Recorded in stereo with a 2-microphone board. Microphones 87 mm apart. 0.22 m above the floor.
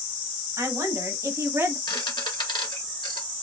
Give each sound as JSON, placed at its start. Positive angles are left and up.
{"t": 0.6, "sound": "a woman speaking", "side_deg": -40, "distance_m": 1.2}
{"t": 1.9, "sound": "a squeak", "side_deg": 65, "distance_m": 2.5}